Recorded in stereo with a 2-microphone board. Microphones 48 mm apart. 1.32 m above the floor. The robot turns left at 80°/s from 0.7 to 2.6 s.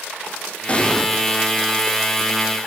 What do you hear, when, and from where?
0.7 s an explosion: 25° left (ahead or behind), 1.2 m; by 1.1 s 5° left (ahead or behind), 1.2 m